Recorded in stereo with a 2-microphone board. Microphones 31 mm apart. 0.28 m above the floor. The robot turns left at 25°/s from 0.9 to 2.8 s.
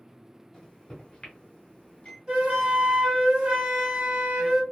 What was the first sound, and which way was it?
A microwave, 25° left (ahead or behind).